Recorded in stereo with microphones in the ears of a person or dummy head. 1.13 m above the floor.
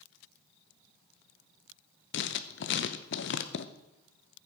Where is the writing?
60° left (ahead or behind), 0.8 m.